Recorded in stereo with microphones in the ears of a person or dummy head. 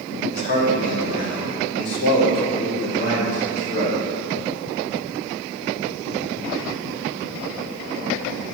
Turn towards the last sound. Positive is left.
turn(degrees=25)  # may be behind; listen again after turning